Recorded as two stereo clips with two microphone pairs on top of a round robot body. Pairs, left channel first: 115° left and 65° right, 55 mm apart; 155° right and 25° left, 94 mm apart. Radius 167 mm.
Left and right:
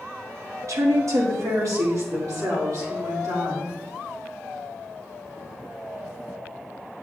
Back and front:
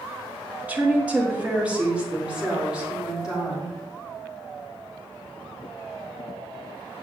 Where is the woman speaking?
50° right, 2 m; by 3.8 s 55° right, 5.5 m.